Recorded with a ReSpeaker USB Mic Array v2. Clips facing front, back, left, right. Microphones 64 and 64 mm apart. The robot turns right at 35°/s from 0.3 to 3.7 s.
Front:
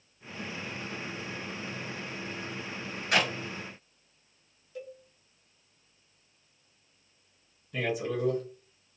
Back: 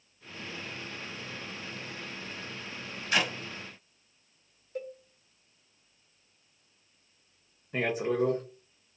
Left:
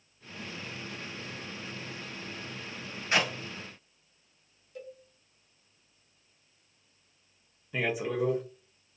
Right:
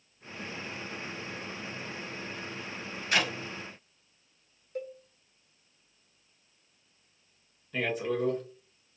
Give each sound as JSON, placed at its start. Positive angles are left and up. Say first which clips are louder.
{"t": 3.1, "sound": "a clap", "louder": "front 2 dB, left 1 dB", "azimuth_deg": 25, "distance_m": 1.5}
{"t": 4.8, "sound": "a cowbell", "louder": "back 4 dB, right 7 dB", "azimuth_deg": -130, "distance_m": 0.7}
{"t": 7.7, "sound": "a man speaking", "louder": "back 3 dB, even", "azimuth_deg": 160, "distance_m": 0.7}